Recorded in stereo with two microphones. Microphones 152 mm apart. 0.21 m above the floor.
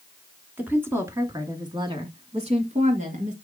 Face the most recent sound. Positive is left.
turn(degrees=-55)  # may be behind; listen again after turning